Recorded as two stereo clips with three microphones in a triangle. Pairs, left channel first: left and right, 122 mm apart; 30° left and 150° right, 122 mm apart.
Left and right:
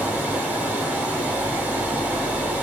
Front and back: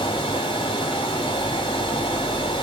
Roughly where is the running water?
Ahead.